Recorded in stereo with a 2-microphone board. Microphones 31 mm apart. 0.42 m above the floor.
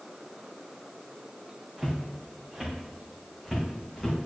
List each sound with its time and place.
1.8 s footsteps: 20° right (ahead or behind), 2 m; by 4.2 s 5° left (ahead or behind), 3.5 m